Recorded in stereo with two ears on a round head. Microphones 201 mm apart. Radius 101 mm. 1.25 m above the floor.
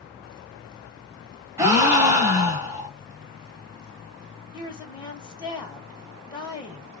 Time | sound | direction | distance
1.6 | a gasp | 15° right (ahead or behind) | 1.1 m
4.5 | a woman speaking | 20° left (ahead or behind) | 1.4 m